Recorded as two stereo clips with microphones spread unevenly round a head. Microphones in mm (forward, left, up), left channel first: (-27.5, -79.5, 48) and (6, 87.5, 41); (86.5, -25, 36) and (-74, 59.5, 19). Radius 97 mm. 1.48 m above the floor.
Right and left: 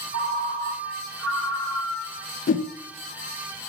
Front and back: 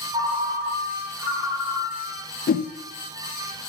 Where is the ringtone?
75° left, 2.5 m.